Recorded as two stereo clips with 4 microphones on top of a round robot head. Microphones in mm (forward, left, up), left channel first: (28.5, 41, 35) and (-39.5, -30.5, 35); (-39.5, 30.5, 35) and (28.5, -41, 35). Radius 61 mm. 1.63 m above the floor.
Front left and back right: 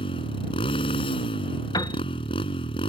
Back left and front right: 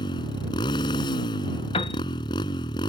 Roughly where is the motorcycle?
Left.